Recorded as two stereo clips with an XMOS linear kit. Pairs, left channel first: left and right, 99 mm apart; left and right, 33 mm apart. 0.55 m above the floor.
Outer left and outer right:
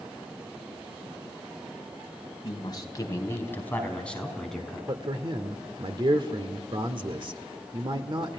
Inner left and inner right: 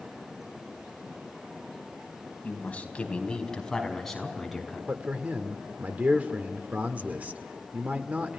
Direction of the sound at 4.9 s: 55° right (ahead or behind).